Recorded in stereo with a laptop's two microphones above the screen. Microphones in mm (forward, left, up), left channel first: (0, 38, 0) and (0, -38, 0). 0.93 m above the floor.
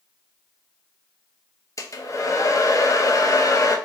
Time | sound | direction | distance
1.8 | a hair dryer | 45° left (ahead or behind) | 0.6 m